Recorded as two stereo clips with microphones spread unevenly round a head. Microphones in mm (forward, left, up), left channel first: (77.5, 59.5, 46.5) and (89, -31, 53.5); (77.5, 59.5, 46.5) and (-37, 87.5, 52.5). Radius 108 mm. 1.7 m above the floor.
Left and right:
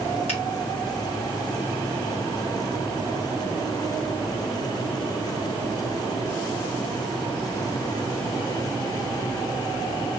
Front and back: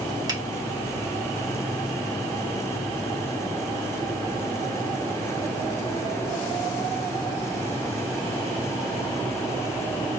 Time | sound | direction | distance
0.3 | a finger snap | 110° left | 2.5 m